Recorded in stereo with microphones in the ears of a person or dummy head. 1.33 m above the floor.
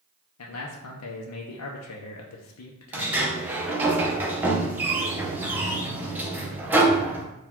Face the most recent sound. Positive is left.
turn(degrees=-10)  # may be behind; listen again after turning